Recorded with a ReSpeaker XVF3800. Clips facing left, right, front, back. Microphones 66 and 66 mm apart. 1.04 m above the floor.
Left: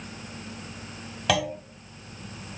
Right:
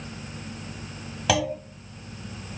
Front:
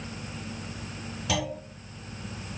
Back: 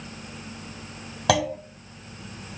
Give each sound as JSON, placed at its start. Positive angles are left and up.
{"t": 1.3, "sound": "a clunk", "azimuth_deg": 180, "distance_m": 1.5}